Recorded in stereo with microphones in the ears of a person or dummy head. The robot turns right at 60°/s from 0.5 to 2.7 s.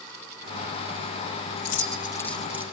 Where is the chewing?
No chewing in this recording.